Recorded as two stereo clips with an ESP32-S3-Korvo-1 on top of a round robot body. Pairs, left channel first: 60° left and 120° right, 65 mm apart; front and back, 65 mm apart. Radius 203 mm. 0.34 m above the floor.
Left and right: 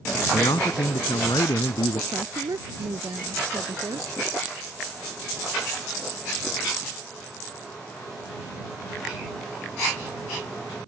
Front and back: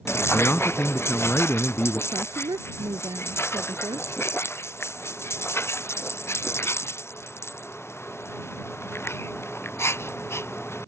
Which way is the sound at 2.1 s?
155° right.